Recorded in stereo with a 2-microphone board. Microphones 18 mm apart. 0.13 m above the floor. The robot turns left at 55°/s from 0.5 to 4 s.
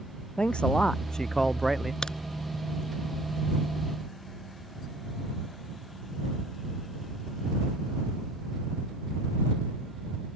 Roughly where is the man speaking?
Ahead left.